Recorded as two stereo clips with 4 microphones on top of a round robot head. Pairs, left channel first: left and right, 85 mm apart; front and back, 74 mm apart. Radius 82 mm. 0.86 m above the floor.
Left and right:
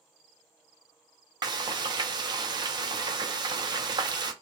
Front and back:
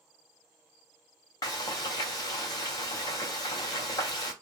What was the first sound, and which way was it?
Frying, 50° right.